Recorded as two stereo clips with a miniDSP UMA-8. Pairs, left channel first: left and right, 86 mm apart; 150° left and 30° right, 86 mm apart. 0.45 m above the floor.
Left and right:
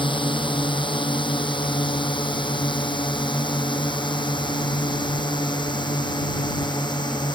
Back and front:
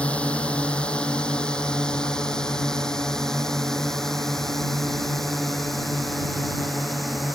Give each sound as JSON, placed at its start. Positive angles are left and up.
{"t": 0.0, "sound": "a drone", "azimuth_deg": 75}